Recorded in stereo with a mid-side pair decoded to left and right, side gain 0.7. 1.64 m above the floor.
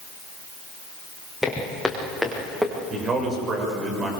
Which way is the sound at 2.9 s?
35° right.